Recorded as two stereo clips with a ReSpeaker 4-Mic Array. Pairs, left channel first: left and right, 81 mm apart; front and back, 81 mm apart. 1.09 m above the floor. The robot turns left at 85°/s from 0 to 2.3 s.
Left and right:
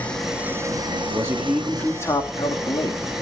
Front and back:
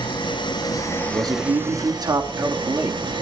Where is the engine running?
20° left, 5.5 m; by 3.2 s 175° right, 5.5 m.